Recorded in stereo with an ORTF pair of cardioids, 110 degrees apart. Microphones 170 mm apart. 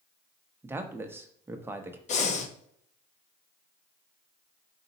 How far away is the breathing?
About 0.7 m.